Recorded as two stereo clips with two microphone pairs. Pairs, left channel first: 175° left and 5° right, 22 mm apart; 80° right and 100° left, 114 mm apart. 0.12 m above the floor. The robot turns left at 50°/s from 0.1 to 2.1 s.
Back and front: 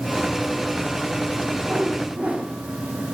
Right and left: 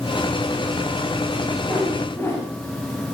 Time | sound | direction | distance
1.7 | a whoosh | 10° left | 8 m